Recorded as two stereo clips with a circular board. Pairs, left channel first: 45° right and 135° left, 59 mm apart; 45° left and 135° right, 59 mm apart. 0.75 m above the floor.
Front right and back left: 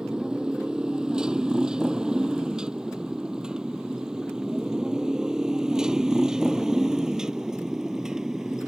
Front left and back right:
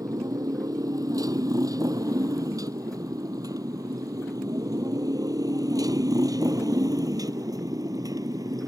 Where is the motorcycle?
150° right; by 8.7 s 145° right.